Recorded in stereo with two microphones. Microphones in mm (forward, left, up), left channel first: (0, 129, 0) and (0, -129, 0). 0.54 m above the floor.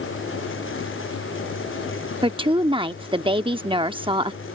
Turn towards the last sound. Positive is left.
turn(degrees=-20)  # may be behind; listen again after turning